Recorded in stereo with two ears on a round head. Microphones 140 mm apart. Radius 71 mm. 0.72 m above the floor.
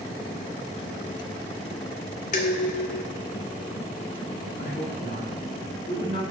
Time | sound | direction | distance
2.3 | dishes clattering | 50° left (ahead or behind) | 1.5 m
4.6 | a woman speaking | 65° left (ahead or behind) | 2.5 m